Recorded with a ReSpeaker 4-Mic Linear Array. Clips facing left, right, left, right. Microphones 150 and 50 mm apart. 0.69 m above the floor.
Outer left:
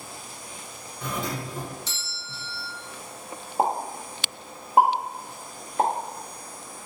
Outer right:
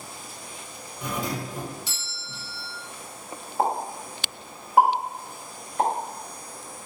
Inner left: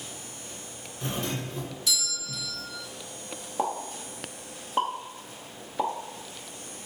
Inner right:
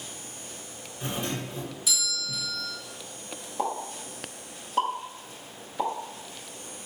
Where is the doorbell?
10° right (ahead or behind), 1.4 m.